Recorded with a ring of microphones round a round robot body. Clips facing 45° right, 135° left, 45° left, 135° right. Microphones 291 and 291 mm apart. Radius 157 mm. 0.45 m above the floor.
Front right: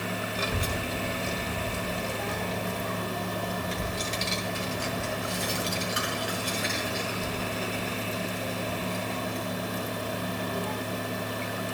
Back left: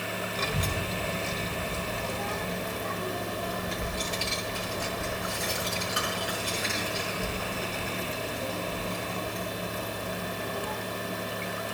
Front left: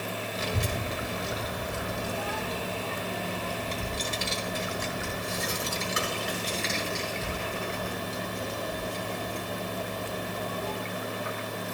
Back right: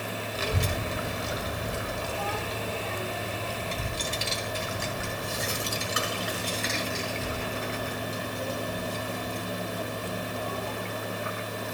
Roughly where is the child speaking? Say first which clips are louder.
Front right 1 dB, back right 2 dB; behind right.